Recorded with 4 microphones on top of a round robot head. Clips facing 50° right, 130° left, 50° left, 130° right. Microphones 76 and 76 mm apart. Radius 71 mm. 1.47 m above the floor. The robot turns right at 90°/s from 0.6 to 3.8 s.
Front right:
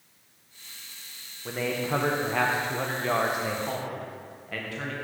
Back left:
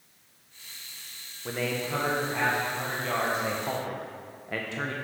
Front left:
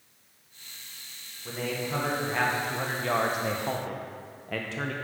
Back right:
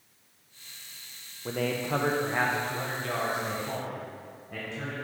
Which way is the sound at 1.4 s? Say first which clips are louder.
Front right 2 dB, back right 3 dB; 145° right.